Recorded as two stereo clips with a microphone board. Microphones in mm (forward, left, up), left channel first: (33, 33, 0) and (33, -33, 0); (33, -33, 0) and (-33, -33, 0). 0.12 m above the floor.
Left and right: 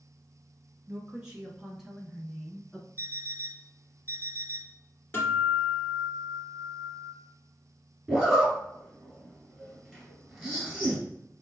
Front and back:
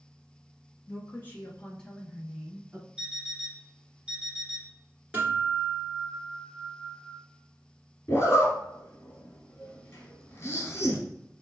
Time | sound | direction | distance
0.9 | a woman speaking | 25° right | 1.4 m
3.0 | an alarm clock | 120° right | 1.1 m
5.1 | a guitar | 130° left | 1.5 m
8.1 | a zipper | 10° right | 1.6 m